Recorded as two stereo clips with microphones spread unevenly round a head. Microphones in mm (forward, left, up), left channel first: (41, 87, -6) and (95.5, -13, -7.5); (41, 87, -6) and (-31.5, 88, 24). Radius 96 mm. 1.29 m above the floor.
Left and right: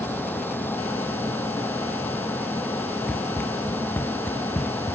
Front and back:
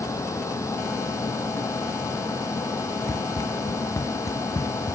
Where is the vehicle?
45° left.